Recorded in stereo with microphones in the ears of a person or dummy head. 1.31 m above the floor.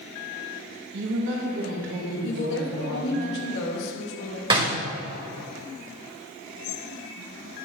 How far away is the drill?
No drill in this recording.